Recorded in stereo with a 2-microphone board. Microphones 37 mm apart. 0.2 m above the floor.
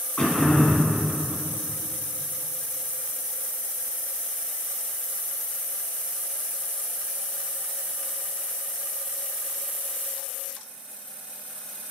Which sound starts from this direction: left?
Throat clearing, at 0.2 s.